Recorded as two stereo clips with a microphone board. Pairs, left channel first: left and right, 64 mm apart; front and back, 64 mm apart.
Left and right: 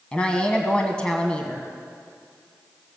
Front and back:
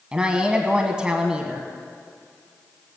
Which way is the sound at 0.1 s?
130° left.